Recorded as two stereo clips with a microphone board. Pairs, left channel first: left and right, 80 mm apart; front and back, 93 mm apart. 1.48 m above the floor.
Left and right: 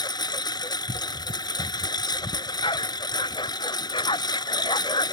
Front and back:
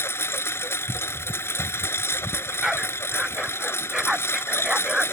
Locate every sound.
0.0 s a lawn mower: 65° left
2.3 s a dog barking: 95° left